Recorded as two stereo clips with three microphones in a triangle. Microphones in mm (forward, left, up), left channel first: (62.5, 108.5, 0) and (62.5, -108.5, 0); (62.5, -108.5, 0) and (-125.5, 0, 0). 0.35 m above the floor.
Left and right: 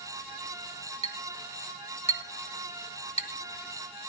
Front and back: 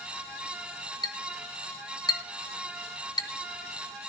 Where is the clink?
35° left, 1.4 m.